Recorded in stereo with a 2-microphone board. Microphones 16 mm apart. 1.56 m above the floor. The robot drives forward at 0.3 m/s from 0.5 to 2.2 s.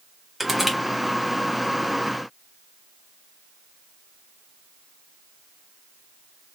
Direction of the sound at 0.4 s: 20° right (ahead or behind).